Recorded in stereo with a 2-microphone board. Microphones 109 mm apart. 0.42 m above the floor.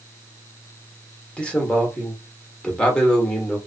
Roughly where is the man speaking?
Centre.